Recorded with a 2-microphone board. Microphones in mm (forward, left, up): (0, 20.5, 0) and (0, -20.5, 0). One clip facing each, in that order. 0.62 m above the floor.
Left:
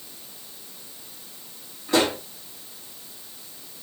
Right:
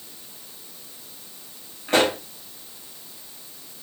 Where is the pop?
50° right (ahead or behind), 4 m.